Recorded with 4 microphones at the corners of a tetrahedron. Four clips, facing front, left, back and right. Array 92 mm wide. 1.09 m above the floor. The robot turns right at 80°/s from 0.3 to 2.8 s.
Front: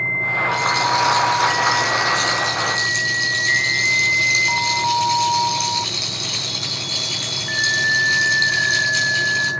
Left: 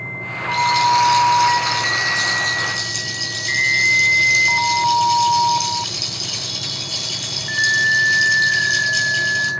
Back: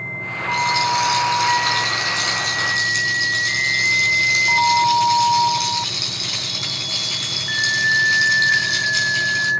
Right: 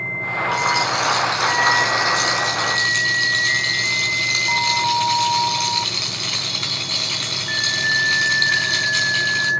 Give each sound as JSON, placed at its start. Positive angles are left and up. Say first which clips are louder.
{"t": 0.5, "sound": "a rattle", "louder": "left 6 dB, back 3 dB", "azimuth_deg": 80, "distance_m": 4.0}